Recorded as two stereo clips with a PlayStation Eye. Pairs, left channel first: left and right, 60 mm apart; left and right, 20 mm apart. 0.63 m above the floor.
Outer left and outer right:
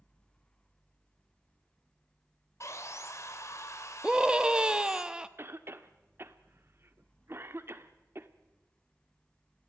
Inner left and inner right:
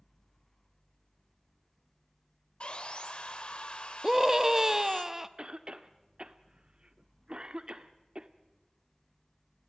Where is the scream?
15° right (ahead or behind), 0.8 m.